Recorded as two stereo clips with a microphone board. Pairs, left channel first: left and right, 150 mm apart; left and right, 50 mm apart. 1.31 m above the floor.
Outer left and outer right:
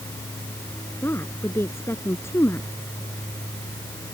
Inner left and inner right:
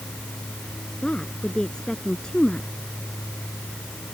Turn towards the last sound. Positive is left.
turn(degrees=15)  # may be behind; listen again after turning